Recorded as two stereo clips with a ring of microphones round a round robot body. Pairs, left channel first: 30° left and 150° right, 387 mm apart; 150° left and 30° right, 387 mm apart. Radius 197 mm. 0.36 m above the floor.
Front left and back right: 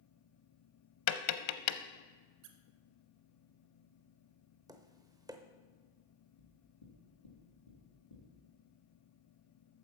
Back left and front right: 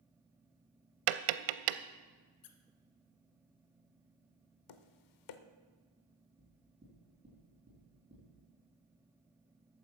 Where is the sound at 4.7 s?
130° left, 0.8 m.